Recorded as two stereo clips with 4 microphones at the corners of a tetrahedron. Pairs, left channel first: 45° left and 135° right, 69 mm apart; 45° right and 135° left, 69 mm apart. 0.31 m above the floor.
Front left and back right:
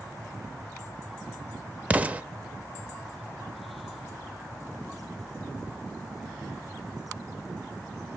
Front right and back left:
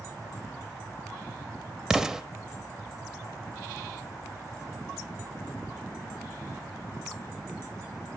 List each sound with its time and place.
1.9 s an explosion: 150° right, 0.5 m